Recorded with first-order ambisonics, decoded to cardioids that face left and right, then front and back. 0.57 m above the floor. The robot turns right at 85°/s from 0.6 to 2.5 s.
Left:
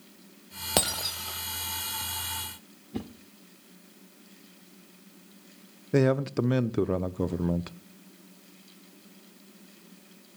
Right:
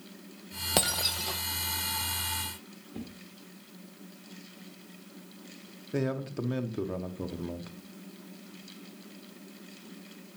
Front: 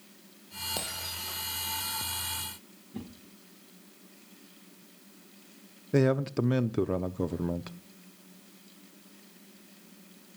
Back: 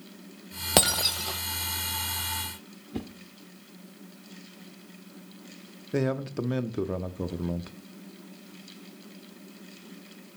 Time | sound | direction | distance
0.8 | breaking glass | 170° left | 0.8 m
2.9 | a whoosh | 140° left | 1.5 m
5.9 | a man speaking | 75° left | 0.6 m